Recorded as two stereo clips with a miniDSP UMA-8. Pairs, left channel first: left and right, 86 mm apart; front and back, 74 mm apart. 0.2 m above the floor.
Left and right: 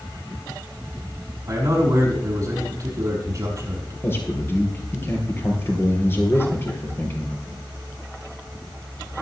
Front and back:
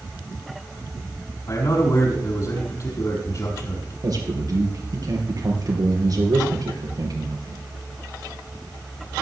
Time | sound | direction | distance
1.5 | a man speaking | 40° right | 6 m
4.0 | a man speaking | 150° left | 4 m